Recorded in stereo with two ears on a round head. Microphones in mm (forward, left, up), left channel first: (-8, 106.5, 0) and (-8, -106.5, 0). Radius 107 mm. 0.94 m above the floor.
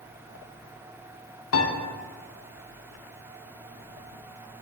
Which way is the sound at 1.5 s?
60° left (ahead or behind).